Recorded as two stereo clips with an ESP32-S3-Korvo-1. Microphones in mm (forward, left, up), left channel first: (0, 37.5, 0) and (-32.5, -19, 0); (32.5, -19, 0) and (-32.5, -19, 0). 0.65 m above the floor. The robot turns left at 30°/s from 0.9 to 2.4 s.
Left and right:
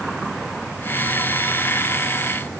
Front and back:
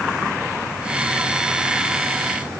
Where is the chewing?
I don't hear chewing.